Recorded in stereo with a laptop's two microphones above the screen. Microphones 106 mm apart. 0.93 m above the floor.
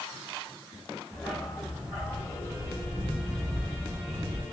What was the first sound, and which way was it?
A dog barking, centre (ahead or behind).